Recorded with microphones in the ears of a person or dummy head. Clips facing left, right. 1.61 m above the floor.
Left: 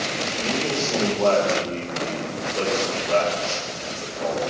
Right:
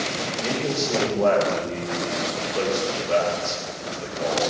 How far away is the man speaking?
About 4.5 m.